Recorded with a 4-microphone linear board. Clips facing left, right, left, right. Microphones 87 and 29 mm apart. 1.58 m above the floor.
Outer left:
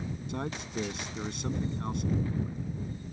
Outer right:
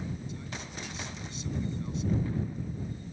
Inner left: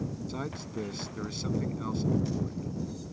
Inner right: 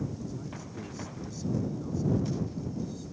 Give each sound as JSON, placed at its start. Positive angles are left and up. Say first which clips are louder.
{"t": 0.3, "sound": "a man speaking", "louder": "outer left 6 dB, inner left 4 dB", "side_deg": 65}